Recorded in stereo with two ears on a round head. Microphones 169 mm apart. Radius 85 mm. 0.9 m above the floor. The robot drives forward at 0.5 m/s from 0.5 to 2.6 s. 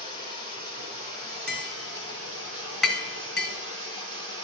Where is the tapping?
Centre (ahead or behind), 3 m.